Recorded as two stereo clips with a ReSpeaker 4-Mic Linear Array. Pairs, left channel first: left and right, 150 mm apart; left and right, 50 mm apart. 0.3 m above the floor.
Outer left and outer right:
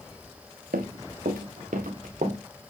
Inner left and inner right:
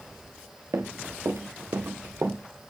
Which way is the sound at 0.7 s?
70° right (ahead or behind).